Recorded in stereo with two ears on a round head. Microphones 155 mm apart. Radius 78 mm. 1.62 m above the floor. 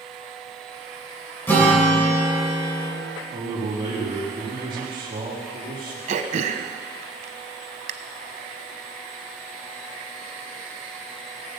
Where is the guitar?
10° left (ahead or behind), 3.5 m.